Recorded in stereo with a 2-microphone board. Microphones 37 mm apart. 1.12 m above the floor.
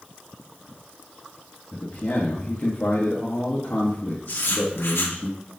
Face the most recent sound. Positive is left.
turn(degrees=80)